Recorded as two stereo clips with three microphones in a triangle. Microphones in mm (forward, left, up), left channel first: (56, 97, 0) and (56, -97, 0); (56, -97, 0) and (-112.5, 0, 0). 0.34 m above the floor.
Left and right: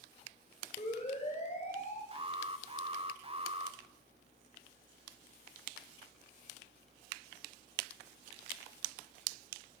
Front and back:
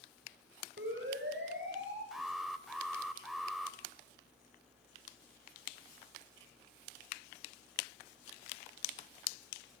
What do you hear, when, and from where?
0.8 s a siren: 145° left, 8 m; by 2.0 s 140° left, 6.5 m
2.1 s an alarm: 120° right, 1.4 m